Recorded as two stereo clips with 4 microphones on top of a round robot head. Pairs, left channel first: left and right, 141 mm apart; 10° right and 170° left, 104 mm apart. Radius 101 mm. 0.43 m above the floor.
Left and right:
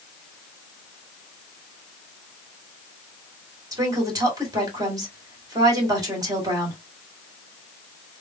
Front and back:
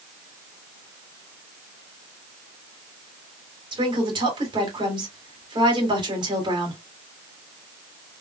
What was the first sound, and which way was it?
A woman speaking, 150° right.